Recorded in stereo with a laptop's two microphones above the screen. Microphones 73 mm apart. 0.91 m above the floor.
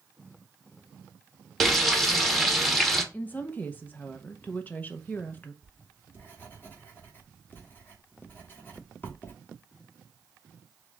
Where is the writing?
30° left (ahead or behind), 1.6 m.